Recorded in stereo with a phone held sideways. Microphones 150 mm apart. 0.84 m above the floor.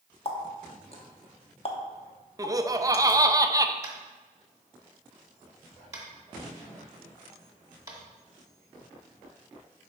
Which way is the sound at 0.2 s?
40° left (ahead or behind).